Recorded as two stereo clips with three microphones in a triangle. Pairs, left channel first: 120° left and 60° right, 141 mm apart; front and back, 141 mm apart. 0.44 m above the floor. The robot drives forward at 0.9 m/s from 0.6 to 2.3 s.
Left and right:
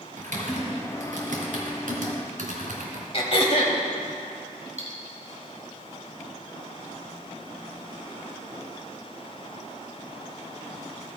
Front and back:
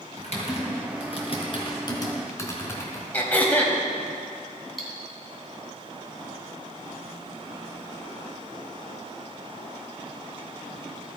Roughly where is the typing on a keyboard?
Ahead right.